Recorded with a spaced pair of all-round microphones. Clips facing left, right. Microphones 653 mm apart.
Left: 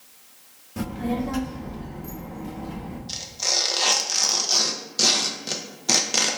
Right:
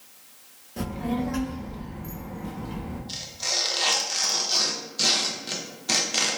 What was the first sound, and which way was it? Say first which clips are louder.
A child speaking: left 1 dB; 40° left (ahead or behind).